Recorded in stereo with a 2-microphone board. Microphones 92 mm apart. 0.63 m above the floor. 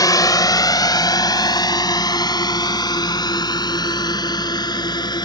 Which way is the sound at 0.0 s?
40° left (ahead or behind).